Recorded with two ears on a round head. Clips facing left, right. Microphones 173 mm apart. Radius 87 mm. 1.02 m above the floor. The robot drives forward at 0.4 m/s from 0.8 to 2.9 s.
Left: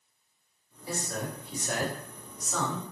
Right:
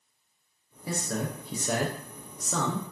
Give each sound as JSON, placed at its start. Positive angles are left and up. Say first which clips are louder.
{"t": 0.9, "sound": "a man speaking", "louder": "right 3 dB", "side_deg": -55, "distance_m": 0.7}